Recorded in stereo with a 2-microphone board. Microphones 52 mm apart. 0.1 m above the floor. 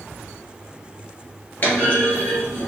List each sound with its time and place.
1.6 s a clunk: 45° left (ahead or behind), 2.0 m